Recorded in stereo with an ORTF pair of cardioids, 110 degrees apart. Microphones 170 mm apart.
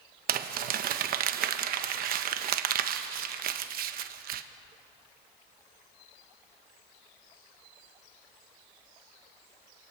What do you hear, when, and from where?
0.3 s crumpling: 65° right, 1.1 m